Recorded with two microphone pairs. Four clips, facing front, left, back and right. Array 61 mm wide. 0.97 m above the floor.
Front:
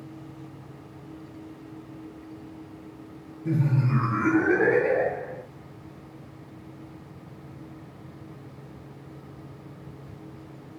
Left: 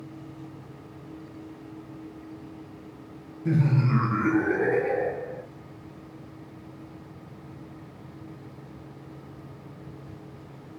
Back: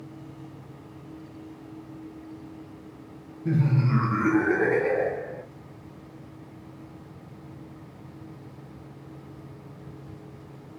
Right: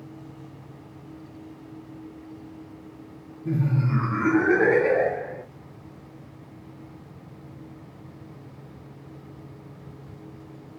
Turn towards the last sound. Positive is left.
turn(degrees=-85)